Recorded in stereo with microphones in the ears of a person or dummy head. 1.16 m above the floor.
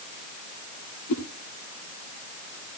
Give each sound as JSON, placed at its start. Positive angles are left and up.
{"t": 1.1, "sound": "a whoosh", "side_deg": 80, "distance_m": 2.5}